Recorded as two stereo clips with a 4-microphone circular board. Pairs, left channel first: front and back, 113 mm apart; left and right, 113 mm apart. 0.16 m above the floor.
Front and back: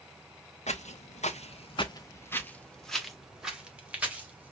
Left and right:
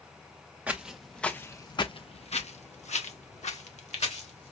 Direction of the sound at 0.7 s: 15° right.